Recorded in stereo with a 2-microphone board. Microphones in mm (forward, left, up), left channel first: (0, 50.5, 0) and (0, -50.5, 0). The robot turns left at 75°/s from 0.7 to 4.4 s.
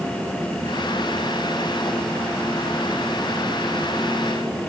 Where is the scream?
No scream in this recording.